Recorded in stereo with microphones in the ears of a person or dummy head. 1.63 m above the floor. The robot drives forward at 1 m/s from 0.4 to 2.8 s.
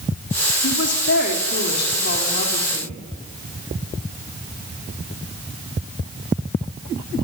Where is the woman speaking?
70° left (ahead or behind), 3.5 m; by 3.0 s 45° left (ahead or behind), 4.5 m.